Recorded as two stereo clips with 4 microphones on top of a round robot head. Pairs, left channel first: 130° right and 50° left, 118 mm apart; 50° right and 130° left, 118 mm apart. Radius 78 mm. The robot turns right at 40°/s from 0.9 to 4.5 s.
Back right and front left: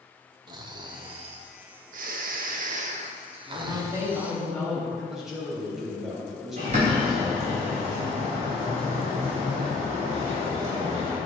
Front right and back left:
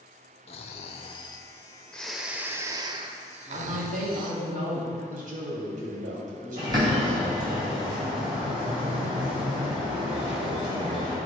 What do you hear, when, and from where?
0.5 s snoring: 5° right, 0.6 m; by 4.4 s 135° left, 0.6 m
3.5 s a man speaking: 100° left, 3 m; by 4.9 s 140° left, 3 m
5.0 s a man speaking: 135° left, 3 m
6.6 s a bird: 80° left, 3.5 m